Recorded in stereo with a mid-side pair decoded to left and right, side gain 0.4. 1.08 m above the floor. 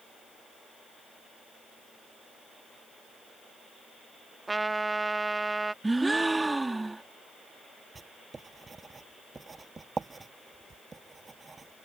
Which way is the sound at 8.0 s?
30° right.